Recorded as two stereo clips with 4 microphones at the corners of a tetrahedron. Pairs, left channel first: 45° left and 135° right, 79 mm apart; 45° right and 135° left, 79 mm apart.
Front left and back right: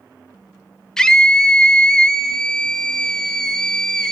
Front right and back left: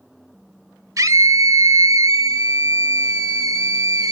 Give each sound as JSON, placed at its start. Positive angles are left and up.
{"t": 1.0, "sound": "a scream", "azimuth_deg": 125, "distance_m": 1.1}